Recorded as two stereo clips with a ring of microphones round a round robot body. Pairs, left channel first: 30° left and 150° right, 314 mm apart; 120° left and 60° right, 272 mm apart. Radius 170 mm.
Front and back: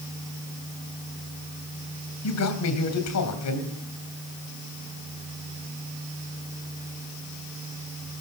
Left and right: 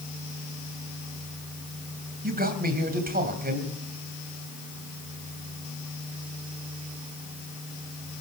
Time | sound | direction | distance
2.2 | a man speaking | 5° right | 3 m